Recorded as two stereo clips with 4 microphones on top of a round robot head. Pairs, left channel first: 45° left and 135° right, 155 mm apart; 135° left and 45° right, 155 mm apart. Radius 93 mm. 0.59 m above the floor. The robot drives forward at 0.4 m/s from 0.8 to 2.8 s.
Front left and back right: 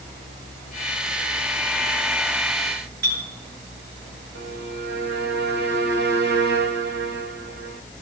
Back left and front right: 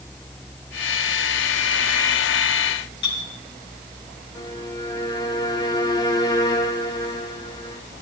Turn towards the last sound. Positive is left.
turn(degrees=-155)